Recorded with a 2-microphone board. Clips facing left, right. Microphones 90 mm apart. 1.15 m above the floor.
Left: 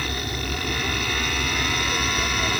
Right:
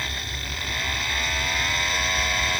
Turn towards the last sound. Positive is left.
turn(degrees=40)  # may be behind; listen again after turning